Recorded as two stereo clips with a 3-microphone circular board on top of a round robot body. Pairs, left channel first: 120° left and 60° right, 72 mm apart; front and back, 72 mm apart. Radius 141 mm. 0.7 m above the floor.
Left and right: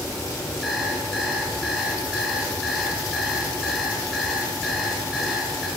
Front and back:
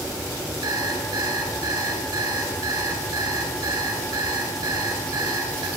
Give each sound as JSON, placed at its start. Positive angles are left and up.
{"t": 0.6, "sound": "an alarm clock", "azimuth_deg": -155, "distance_m": 9.0}